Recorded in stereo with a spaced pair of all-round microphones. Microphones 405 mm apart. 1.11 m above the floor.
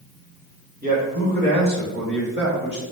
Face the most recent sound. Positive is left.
turn(degrees=-30)  # may be behind; listen again after turning